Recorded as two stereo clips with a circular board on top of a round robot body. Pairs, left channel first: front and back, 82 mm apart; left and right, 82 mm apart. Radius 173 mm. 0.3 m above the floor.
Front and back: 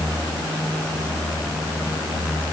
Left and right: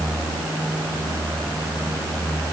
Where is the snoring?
I don't hear snoring.